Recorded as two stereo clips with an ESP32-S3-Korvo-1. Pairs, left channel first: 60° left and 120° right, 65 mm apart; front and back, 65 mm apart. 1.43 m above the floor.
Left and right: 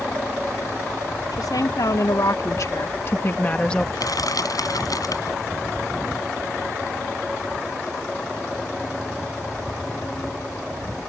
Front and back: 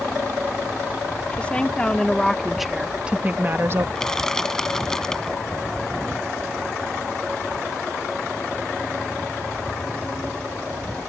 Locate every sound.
1.3 s a woman speaking: 70° left; by 3.9 s 140° left
4.0 s crushing: 80° left